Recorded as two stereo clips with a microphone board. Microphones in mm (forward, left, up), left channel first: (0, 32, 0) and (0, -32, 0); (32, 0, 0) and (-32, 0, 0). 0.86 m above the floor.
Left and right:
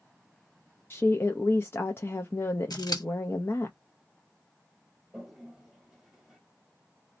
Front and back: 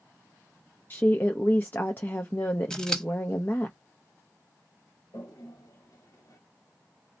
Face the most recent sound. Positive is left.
turn(degrees=-5)